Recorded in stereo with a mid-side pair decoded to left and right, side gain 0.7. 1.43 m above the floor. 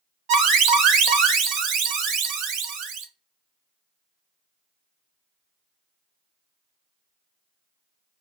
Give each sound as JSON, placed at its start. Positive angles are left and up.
{"t": 0.3, "sound": "an alarm", "azimuth_deg": -65, "distance_m": 1.1}